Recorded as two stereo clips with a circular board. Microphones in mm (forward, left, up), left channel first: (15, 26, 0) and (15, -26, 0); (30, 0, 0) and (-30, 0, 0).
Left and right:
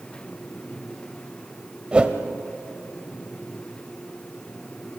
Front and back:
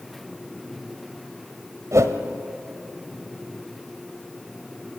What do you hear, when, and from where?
1.9 s a whoosh: 160° right, 1.3 m